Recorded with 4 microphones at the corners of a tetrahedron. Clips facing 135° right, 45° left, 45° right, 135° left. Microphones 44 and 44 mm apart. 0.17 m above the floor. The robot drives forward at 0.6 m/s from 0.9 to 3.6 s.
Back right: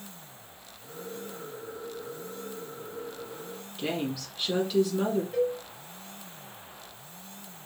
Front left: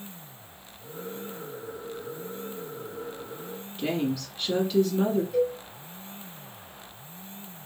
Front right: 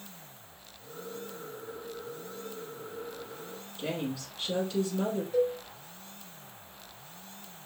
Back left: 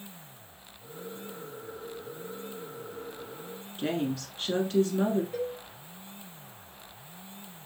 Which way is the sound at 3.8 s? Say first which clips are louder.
Front left 3 dB, back left 4 dB; 140° left.